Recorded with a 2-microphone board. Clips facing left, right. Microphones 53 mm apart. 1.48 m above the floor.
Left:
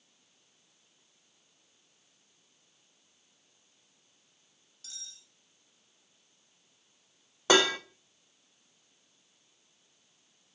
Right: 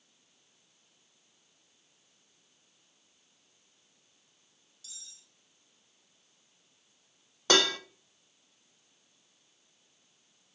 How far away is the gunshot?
I don't hear a gunshot.